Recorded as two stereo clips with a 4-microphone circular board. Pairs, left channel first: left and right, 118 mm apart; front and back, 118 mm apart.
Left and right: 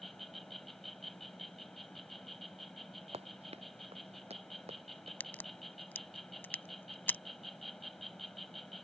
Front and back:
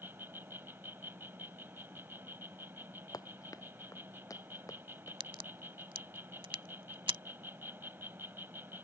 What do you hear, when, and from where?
0.0 s an insect: 175° left
3.1 s running footsteps: 60° right
5.2 s a crack: 160° left